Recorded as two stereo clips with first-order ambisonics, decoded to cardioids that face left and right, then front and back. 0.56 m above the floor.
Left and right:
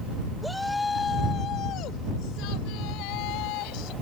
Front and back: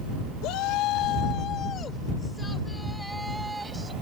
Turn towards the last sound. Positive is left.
turn(degrees=100)